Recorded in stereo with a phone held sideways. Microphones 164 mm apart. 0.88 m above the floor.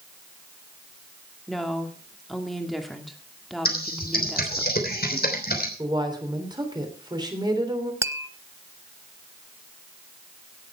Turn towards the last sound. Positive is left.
turn(degrees=-15)  # may be behind; listen again after turning